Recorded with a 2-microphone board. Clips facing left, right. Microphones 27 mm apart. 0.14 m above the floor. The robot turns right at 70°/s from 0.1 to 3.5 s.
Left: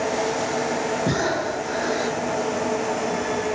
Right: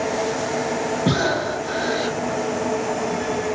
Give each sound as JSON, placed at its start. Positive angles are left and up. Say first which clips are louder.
{"t": 1.1, "sound": "breathing", "louder": "right 2 dB", "azimuth_deg": -120, "distance_m": 3.0}